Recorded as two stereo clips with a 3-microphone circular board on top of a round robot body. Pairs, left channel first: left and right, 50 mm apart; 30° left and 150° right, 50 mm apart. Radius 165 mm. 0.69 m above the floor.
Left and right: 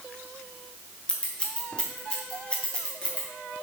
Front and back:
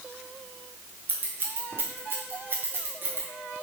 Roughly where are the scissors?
Behind.